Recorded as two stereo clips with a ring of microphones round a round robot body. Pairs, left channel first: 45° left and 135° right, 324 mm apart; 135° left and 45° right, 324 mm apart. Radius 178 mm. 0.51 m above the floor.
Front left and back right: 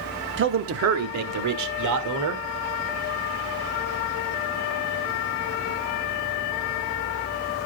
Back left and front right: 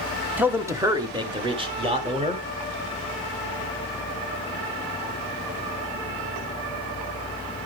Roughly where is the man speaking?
Behind right.